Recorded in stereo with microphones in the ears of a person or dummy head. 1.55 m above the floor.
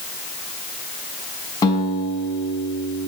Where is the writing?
I don't hear writing.